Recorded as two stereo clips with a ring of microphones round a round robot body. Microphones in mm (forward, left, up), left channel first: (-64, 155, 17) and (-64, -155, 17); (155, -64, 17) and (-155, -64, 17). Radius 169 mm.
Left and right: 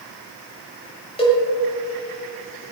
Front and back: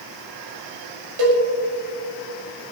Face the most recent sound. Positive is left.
turn(degrees=165)